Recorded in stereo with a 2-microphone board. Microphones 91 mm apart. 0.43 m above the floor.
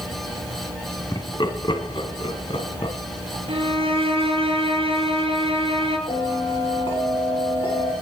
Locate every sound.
1.1 s laughter: 45° left (ahead or behind), 4 m; by 3.0 s 70° left (ahead or behind), 4 m
3.5 s a violin: 80° right, 6.5 m
6.1 s a bell: 70° left (ahead or behind), 9 m